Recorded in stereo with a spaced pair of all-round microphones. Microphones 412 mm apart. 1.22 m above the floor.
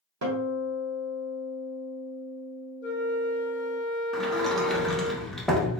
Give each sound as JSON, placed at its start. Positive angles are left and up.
{"t": 0.2, "sound": "a guitar", "side_deg": -40, "distance_m": 1.1}
{"t": 2.8, "sound": "a flute", "side_deg": 25, "distance_m": 1.1}
{"t": 4.1, "sound": "a sliding door", "side_deg": 0, "distance_m": 0.9}